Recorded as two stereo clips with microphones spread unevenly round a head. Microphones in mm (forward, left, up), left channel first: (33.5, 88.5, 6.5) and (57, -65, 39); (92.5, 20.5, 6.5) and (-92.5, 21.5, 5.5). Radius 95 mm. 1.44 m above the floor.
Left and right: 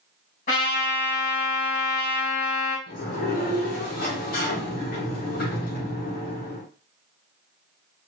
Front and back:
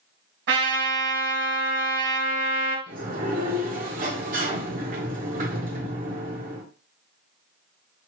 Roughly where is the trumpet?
Behind left.